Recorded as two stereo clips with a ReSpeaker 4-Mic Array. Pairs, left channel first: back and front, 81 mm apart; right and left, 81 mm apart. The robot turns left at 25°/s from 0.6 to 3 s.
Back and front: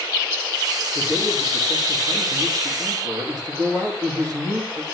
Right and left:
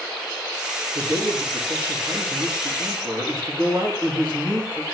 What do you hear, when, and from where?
0.9 s a man speaking: 90° left, 6 m; by 4.8 s 40° left, 6 m